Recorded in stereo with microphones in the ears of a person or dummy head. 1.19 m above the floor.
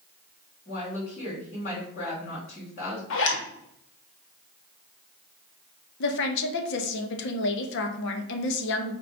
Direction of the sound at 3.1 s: 65° left (ahead or behind).